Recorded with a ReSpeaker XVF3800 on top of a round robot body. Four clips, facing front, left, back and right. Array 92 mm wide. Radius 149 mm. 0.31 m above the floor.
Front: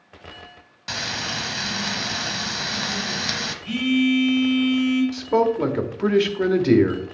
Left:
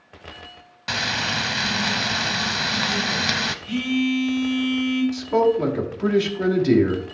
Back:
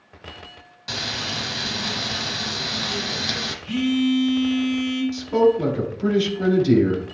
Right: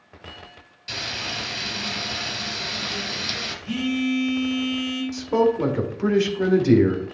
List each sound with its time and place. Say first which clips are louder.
0.9 s frying: left 7 dB, front 1 dB; 75° left, 0.7 m
3.6 s a phone buzzing: even, front 1 dB; 15° right, 4 m
5.1 s a man speaking: right 2 dB, back 2 dB; 15° right, 1.7 m